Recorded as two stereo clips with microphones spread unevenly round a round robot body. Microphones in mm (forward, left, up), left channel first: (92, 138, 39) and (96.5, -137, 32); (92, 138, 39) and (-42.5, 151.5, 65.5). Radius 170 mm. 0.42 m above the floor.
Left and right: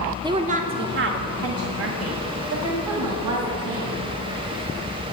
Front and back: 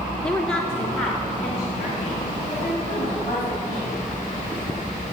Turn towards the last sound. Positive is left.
turn(degrees=-95)